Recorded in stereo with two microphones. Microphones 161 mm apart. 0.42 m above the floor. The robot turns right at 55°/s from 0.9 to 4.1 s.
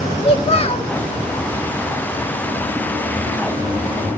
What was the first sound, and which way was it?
A child speaking, 40° left (ahead or behind).